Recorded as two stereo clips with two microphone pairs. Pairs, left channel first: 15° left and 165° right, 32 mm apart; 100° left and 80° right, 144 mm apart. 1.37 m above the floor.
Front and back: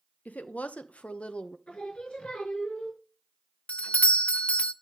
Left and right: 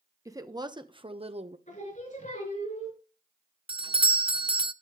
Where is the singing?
70° left, 6 m.